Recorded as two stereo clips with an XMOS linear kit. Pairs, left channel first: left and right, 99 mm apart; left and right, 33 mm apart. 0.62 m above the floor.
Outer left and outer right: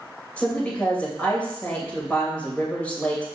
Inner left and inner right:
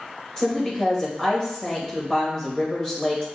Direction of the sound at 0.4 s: 15° left (ahead or behind).